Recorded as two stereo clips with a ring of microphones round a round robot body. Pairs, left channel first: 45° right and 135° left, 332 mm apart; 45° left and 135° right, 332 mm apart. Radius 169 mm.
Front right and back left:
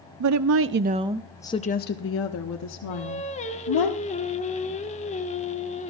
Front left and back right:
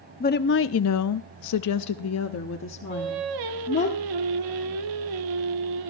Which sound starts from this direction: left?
A woman speaking, at 0.2 s.